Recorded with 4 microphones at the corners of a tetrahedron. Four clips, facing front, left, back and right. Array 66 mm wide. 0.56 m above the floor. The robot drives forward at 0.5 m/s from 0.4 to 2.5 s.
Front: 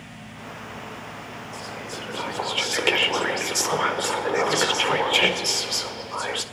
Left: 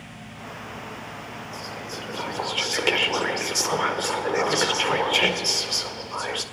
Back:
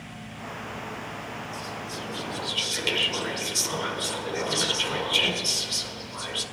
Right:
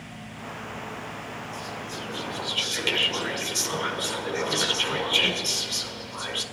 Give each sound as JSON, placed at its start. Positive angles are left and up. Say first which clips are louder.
{"t": 1.5, "sound": "whispering", "louder": "even, front 1 dB", "azimuth_deg": 30, "distance_m": 1.9}